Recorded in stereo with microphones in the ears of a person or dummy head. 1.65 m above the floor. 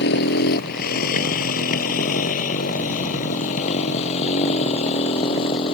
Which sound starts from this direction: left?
A motorcycle, at 0.0 s.